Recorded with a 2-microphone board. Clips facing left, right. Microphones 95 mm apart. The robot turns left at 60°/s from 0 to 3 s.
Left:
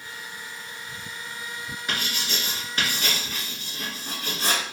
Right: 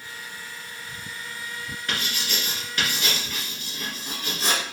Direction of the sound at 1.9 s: 15° left (ahead or behind).